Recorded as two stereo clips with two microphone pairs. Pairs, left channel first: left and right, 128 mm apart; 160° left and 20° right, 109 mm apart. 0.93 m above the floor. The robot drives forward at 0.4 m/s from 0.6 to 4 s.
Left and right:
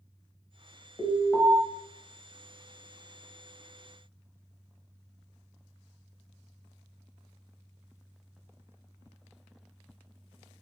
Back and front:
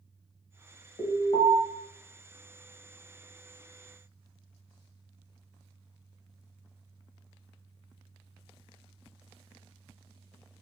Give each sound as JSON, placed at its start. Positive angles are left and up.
{"t": 1.0, "sound": "an alarm", "azimuth_deg": 155, "distance_m": 1.3}